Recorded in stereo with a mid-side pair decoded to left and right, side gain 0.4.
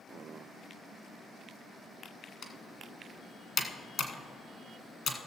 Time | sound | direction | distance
2.4 | typing on a keyboard | 60° left | 1.5 m